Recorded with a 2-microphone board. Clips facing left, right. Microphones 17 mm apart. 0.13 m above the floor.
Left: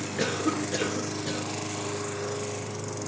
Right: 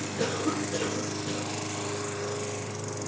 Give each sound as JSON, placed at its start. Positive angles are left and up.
{"t": 0.2, "sound": "a cough", "side_deg": 35, "distance_m": 1.8}